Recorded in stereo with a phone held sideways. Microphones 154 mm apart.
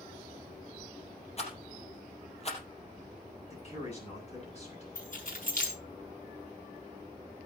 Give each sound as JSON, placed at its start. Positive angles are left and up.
{"t": 1.4, "sound": "a rattle", "side_deg": 45, "distance_m": 4.0}
{"t": 3.5, "sound": "a man speaking", "side_deg": 45, "distance_m": 7.5}
{"t": 5.0, "sound": "keys jangling", "side_deg": 60, "distance_m": 5.5}